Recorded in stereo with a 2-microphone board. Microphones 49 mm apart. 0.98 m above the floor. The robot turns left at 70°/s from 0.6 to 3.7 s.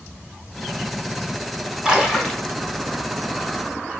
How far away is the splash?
About 0.9 m.